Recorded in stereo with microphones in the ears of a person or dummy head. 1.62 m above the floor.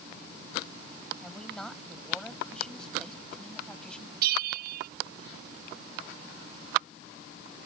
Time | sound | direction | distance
1.2 | a woman speaking | 5° left (ahead or behind) | ?
4.2 | a bell | 60° right (ahead or behind) | ?